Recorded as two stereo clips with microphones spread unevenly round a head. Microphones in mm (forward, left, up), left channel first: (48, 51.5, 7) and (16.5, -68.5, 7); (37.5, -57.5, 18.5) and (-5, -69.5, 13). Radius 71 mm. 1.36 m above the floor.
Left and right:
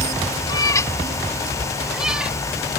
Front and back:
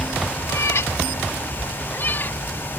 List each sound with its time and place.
0.5 s a cat meowing: 20° left; by 2.4 s 25° right